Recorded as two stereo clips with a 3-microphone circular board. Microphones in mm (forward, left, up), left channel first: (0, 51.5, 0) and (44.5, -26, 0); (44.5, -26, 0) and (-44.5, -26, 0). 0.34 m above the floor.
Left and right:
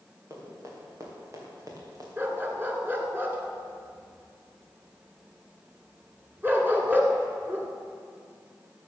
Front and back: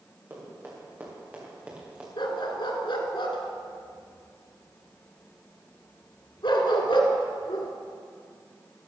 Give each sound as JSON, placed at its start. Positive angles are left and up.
{"t": 0.3, "sound": "running footsteps", "azimuth_deg": -115, "distance_m": 5.5}
{"t": 2.2, "sound": "a dog barking", "azimuth_deg": 5, "distance_m": 1.8}